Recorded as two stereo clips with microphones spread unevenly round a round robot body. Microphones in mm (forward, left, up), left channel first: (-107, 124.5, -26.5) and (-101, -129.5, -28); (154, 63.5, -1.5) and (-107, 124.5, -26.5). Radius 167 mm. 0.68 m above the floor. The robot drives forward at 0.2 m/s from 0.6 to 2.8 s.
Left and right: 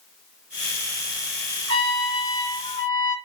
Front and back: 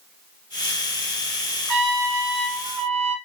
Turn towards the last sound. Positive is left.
turn(degrees=165)